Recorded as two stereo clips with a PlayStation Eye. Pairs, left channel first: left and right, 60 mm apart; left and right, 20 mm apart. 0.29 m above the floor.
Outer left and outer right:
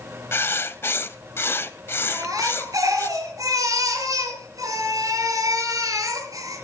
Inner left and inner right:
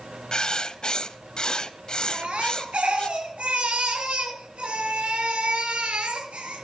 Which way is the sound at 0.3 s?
45° left (ahead or behind).